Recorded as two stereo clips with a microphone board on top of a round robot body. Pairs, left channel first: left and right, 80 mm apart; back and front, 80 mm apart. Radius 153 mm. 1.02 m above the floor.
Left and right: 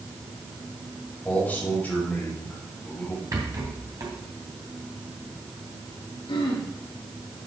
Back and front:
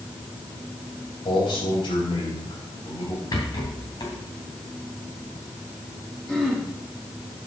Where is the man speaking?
160° left, 4.5 m.